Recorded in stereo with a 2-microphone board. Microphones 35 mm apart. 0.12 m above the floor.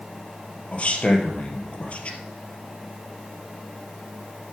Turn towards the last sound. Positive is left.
turn(degrees=40)  # may be behind; listen again after turning